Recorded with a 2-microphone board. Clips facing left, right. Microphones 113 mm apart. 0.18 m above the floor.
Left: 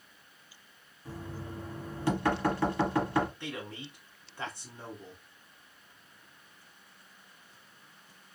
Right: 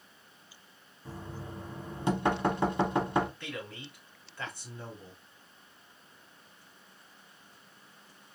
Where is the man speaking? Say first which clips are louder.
Left 1 dB; 15° left (ahead or behind), 1.6 m.